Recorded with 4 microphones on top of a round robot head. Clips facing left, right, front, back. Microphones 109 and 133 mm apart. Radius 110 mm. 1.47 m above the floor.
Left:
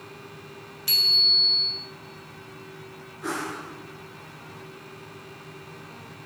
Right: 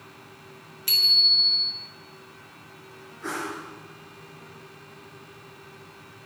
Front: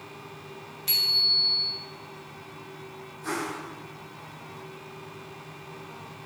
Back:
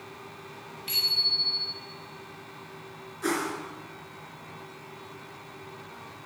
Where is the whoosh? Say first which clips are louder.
Left 1 dB, back 3 dB; 175° left, 3.5 m.